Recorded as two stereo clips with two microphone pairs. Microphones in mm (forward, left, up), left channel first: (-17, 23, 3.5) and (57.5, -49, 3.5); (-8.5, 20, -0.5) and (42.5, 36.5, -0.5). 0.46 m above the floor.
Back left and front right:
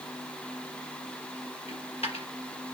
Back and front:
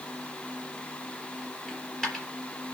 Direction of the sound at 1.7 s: 115° left.